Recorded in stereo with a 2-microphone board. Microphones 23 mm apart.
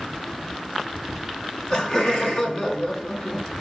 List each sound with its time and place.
1.7 s laughter: 45° left (ahead or behind), 3.5 m